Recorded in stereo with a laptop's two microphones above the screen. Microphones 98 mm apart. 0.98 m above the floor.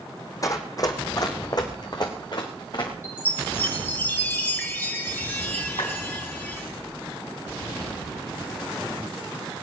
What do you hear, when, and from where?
0.4 s running footsteps: 35° left (ahead or behind), 2.5 m; by 2.9 s 50° left (ahead or behind), 4 m
3.0 s a chime: 20° left (ahead or behind), 3.5 m
5.8 s a clap: 75° left (ahead or behind), 5.5 m